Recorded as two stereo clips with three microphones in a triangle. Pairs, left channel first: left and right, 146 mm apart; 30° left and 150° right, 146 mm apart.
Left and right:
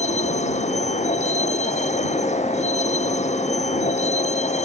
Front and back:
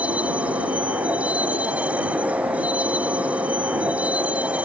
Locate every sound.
0.0 s a vehicle: 130° left